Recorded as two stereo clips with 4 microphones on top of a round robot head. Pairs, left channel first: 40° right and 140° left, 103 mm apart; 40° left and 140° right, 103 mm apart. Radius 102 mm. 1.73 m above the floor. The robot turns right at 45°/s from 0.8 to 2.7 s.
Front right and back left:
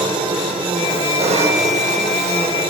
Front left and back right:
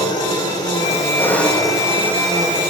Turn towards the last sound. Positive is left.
turn(degrees=180)